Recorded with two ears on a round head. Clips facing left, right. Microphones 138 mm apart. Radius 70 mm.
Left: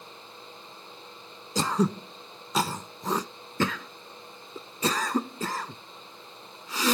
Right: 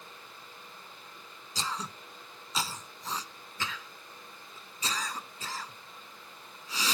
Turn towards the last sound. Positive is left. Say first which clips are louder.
# left 13 dB
turn(degrees=45)  # may be behind; listen again after turning